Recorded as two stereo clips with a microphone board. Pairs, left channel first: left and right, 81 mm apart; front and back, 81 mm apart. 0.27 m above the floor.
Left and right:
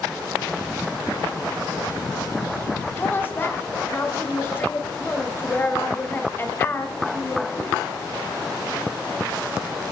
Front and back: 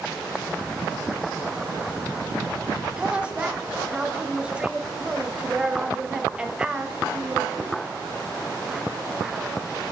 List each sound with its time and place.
3.0 s a woman speaking: 115° left, 1.0 m